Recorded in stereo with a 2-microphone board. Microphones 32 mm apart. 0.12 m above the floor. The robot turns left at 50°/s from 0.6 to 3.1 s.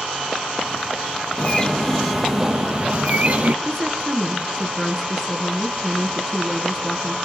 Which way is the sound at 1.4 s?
35° left.